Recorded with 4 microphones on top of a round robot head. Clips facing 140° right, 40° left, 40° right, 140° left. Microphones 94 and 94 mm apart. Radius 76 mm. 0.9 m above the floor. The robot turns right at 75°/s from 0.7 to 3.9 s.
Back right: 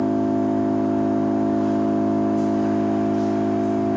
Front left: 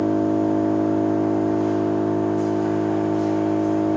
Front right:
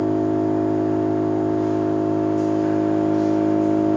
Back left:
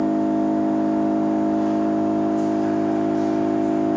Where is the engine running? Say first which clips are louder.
Front left 1 dB, even; 80° left, 1.8 m; by 4.0 s 40° right, 1.8 m.